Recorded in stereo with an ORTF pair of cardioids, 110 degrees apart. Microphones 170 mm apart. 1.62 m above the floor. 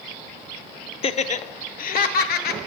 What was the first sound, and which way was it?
Laughter, 35° left.